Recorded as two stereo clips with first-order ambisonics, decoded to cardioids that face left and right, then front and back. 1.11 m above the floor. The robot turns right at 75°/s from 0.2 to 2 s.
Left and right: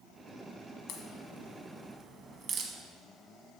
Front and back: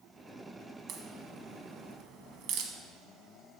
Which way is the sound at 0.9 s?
120° left.